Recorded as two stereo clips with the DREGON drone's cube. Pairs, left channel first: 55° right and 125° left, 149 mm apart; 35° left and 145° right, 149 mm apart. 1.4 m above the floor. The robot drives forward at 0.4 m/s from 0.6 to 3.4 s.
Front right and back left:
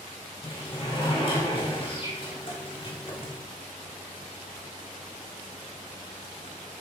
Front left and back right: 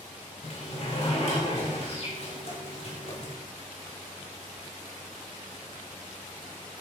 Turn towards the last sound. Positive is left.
turn(degrees=-10)